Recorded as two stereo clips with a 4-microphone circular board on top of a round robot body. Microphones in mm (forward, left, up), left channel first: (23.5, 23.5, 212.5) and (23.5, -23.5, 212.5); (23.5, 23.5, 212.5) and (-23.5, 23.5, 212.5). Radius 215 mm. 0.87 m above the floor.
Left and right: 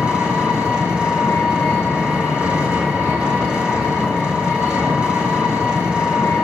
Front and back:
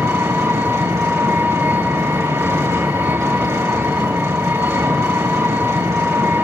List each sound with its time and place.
0.0 s an engine running: 160° right, 8 m